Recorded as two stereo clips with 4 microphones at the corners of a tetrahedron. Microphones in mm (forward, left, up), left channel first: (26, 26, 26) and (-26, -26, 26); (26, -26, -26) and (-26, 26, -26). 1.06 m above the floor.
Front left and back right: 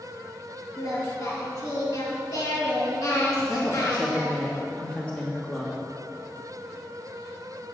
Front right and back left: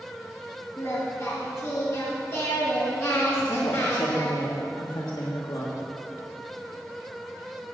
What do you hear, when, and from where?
0.8 s singing: 15° left, 3 m
3.5 s a woman speaking: 30° right, 1.6 m